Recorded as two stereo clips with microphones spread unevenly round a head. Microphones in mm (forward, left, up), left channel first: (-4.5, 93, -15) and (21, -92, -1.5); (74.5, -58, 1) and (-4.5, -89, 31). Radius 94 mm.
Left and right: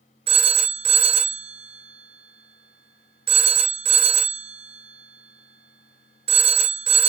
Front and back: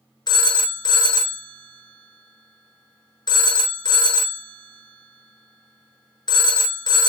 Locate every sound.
0.3 s a phone ringing: 25° right, 0.6 m